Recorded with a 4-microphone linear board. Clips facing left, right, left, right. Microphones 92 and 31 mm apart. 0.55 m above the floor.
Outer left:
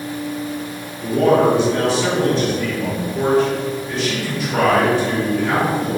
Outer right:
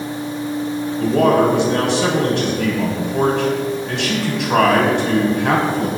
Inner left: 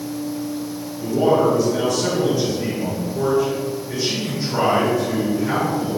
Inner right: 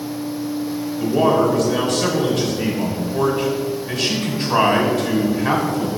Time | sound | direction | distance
1.0 | a man speaking | 65° right (ahead or behind) | 3 m